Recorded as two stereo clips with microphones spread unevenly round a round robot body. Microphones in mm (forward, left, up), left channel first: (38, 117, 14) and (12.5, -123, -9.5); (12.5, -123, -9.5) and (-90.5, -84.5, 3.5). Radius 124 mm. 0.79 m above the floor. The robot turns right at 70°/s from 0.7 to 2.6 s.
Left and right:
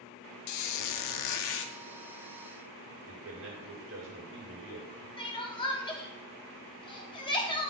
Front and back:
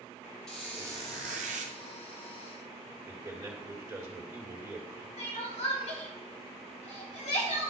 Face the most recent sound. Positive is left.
turn(degrees=10)